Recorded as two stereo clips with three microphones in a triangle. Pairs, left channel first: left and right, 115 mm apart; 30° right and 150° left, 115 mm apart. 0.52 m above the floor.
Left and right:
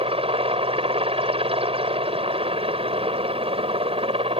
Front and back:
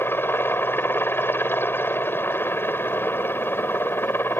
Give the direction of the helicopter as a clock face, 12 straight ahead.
3 o'clock.